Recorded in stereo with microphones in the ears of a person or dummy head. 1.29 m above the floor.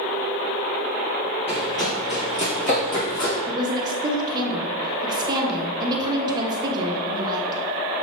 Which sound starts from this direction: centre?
A woman speaking, at 3.5 s.